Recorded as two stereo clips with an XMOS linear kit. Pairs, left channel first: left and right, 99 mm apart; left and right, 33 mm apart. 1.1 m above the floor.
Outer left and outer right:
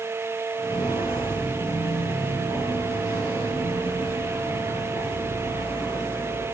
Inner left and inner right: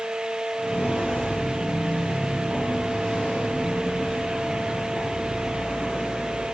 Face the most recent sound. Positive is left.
turn(degrees=75)  # may be behind; listen again after turning